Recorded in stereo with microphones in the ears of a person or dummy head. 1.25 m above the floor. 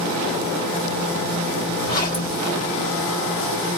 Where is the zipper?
25° left (ahead or behind), 1.9 m.